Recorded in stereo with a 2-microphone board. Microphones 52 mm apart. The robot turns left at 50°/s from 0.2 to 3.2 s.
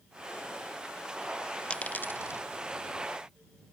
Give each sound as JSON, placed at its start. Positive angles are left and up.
{"t": 1.7, "sound": "a dropped coin", "side_deg": 20}